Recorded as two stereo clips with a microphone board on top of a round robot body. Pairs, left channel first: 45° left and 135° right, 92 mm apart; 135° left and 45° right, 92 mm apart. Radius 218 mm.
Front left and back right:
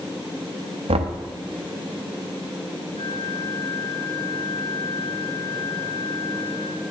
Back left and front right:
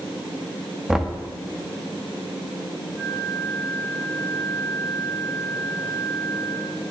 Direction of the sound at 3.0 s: 35° left.